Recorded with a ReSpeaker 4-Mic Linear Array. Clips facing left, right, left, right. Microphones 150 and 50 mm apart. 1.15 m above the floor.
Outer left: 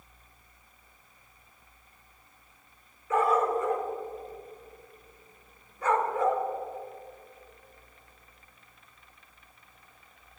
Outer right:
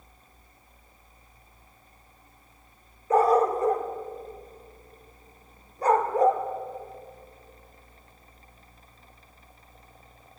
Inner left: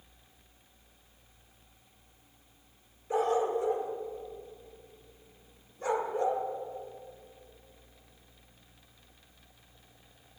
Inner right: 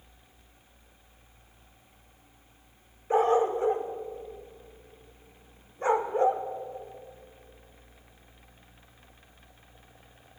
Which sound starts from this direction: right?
A dog barking, at 3.1 s.